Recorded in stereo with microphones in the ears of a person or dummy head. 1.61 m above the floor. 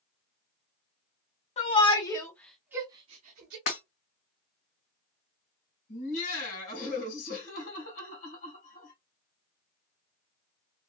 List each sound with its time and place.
1.6 s a shout: 35° left (ahead or behind), 1.1 m; by 3.6 s 55° right (ahead or behind), 0.8 m
3.7 s breaking glass: 45° left (ahead or behind), 1.5 m
5.9 s laughter: 45° left (ahead or behind), 1.7 m